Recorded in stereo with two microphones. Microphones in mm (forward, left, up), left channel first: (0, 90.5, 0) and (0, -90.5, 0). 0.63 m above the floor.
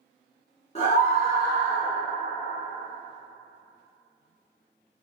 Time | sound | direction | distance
0.8 | a scream | 35° left (ahead or behind) | 0.6 m